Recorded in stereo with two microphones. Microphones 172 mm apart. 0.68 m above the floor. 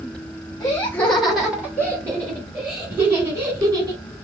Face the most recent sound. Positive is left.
turn(degrees=-30)  # may be behind; listen again after turning